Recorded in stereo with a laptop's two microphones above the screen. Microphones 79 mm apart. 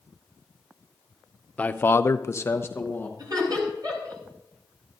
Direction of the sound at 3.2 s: 55° right (ahead or behind).